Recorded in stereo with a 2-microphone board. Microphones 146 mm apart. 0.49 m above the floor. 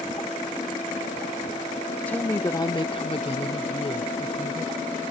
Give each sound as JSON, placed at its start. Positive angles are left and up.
{"t": 2.1, "sound": "a woman speaking", "side_deg": 10}